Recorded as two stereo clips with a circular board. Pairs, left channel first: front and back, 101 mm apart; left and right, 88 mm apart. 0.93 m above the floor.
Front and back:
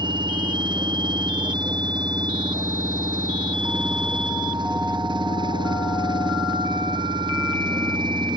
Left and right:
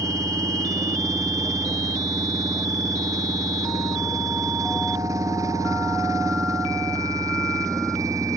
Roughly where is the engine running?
Behind right.